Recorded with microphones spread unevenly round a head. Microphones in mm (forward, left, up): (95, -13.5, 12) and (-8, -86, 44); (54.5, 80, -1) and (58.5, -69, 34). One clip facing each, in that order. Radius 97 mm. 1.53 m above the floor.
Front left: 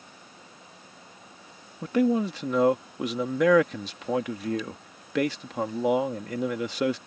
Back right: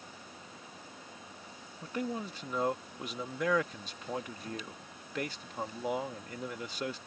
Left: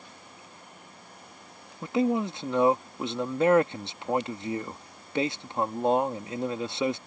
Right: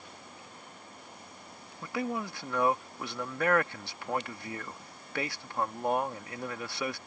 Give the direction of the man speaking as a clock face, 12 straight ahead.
11 o'clock.